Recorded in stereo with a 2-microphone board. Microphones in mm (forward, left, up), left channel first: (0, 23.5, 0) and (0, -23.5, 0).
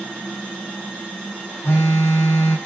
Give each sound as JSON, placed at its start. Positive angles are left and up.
{"t": 1.6, "sound": "a phone buzzing", "side_deg": 80, "distance_m": 6.0}